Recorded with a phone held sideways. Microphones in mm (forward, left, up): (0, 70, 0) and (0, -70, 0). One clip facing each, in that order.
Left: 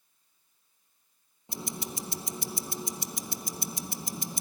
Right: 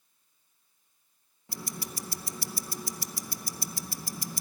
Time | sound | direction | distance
1.5 | ticking | 20° left (ahead or behind) | 0.7 m